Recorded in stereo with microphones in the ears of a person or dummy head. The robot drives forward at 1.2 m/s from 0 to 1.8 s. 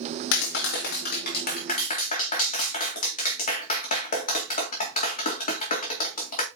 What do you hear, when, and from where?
0.3 s a clap: 70° left (ahead or behind), 2 m; by 6.5 s 45° left (ahead or behind), 3 m